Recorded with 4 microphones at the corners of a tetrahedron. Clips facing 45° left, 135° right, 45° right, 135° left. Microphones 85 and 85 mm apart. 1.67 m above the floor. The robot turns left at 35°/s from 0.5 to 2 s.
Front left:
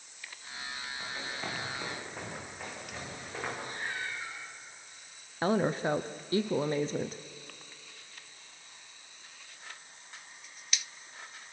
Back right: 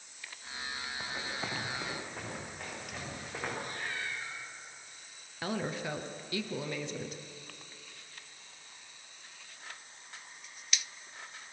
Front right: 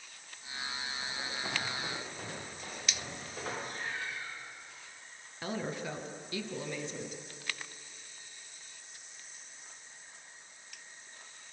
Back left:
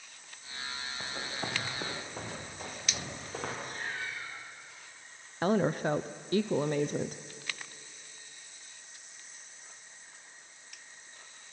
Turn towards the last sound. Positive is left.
turn(degrees=95)